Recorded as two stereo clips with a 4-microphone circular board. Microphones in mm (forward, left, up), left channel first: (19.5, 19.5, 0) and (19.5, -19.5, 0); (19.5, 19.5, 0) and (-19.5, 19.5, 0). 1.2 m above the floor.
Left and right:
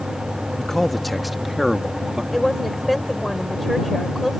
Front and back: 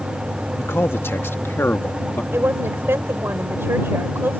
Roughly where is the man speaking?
Ahead.